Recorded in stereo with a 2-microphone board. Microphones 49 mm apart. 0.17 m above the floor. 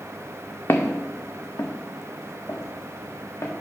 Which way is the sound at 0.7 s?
55° left (ahead or behind).